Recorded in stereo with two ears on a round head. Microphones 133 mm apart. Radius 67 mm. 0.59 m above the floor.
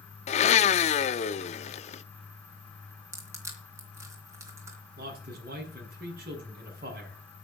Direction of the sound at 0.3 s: 45° left (ahead or behind).